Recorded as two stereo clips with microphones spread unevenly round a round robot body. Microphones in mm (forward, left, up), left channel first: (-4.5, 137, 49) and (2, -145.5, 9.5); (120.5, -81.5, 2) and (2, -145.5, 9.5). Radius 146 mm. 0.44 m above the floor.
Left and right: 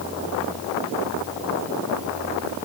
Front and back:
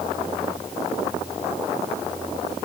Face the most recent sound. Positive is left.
No sound to turn to.